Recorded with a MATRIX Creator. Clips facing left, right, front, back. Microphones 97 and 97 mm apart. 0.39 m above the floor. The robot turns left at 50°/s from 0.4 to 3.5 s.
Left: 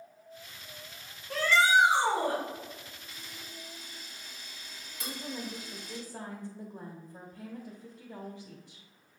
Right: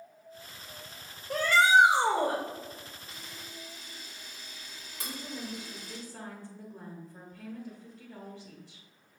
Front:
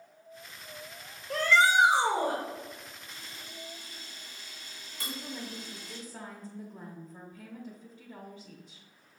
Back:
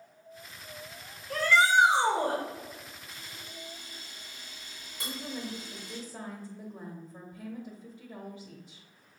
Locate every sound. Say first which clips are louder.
1.3 s a shout: right 2 dB, even; 30° right, 1.1 m; by 2.4 s 85° right, 1.1 m
3.1 s a camera shutter: right 1 dB, even; 95° right, 1.5 m; by 6.0 s 120° right, 1.5 m
5.0 s a woman speaking: left 1 dB, back 2 dB; 110° left, 0.8 m